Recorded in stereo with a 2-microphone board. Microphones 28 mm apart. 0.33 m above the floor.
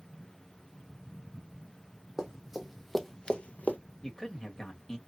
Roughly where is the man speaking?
Centre.